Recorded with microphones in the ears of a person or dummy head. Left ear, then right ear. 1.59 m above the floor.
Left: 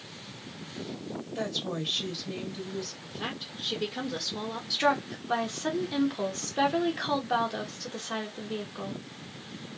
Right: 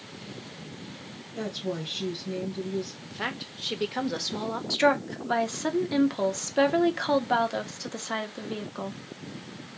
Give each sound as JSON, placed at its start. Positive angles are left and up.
{"t": 1.4, "sound": "a woman speaking", "side_deg": 30, "distance_m": 1.7}
{"t": 3.0, "sound": "a woman speaking", "side_deg": -55, "distance_m": 0.9}
{"t": 4.7, "sound": "a woman speaking", "side_deg": -15, "distance_m": 0.7}